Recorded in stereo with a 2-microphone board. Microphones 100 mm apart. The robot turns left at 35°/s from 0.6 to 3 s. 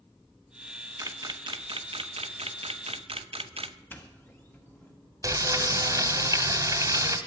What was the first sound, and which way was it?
A camera shutter, 35° right (ahead or behind).